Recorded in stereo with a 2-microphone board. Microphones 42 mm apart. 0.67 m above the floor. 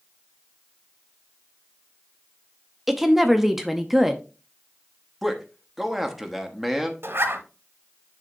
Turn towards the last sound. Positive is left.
turn(degrees=-65)  # may be behind; listen again after turning